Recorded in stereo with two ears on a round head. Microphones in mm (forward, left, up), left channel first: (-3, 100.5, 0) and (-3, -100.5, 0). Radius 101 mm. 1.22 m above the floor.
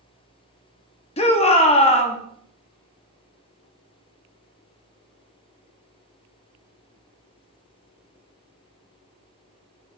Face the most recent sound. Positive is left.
turn(degrees=30)  # may be behind; listen again after turning